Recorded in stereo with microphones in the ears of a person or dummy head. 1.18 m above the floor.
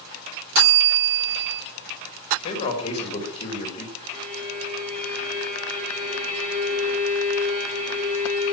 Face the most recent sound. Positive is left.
turn(degrees=-35)  # may be behind; listen again after turning